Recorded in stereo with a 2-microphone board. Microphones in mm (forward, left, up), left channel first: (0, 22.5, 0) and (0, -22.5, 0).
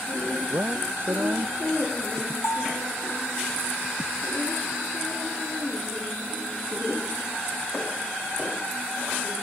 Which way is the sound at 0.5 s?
55° right (ahead or behind).